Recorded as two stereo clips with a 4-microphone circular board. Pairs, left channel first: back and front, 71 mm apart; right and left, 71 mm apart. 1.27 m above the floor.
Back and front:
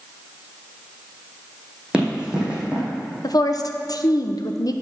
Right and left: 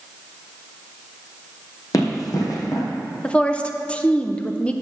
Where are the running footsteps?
75° right, 2.5 m.